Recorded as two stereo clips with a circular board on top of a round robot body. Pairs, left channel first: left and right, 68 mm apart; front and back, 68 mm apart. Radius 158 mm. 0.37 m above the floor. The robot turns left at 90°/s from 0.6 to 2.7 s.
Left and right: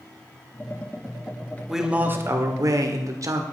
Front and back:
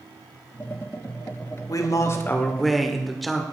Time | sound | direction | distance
1.7 | a man speaking | straight ahead | 1.9 m